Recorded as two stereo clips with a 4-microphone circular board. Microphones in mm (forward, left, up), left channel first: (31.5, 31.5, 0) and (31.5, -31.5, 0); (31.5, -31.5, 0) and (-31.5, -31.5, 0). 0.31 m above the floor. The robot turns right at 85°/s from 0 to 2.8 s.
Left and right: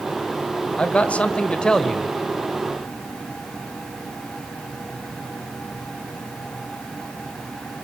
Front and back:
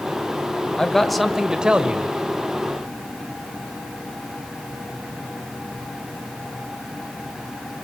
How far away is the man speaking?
About 1.4 m.